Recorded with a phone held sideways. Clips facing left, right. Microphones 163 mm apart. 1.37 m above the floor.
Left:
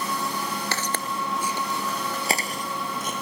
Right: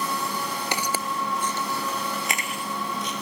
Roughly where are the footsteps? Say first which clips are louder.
Right 1 dB; centre.